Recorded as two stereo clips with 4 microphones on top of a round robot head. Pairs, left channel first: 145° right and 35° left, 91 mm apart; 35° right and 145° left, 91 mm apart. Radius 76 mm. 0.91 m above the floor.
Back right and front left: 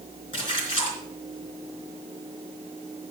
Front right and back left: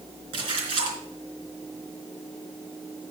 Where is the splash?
Straight behind, 3.5 m.